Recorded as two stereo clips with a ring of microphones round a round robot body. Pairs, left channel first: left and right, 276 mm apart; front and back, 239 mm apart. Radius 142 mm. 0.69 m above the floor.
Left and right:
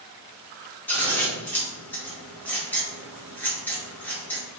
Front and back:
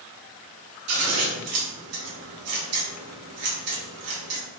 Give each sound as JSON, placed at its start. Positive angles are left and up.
{"t": 0.9, "sound": "scissors", "azimuth_deg": 175, "distance_m": 1.8}